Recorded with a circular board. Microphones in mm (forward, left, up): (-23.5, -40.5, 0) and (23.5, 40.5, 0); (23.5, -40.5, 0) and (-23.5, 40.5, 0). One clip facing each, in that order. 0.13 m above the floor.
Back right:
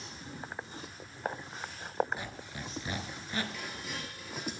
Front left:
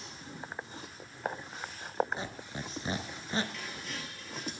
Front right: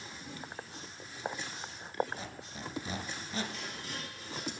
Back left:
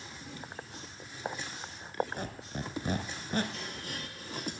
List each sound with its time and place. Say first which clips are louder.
2.2 s a squeak: front left 2 dB, back left 5 dB; 115° left, 0.9 m
3.5 s dishes clattering: back right 1 dB, back left 1 dB; 155° left, 2.0 m